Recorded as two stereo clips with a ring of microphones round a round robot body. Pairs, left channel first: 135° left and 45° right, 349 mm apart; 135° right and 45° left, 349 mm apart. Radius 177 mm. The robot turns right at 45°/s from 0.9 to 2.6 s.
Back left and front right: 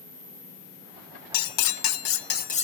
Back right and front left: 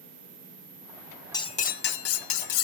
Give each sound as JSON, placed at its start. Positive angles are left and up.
{"t": 1.3, "sound": "cutlery clinking", "azimuth_deg": 145, "distance_m": 0.6}